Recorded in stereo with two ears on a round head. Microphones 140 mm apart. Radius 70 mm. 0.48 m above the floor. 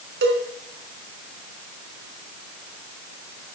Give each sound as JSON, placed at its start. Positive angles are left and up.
{"t": 0.2, "sound": "a cowbell", "side_deg": -80, "distance_m": 3.5}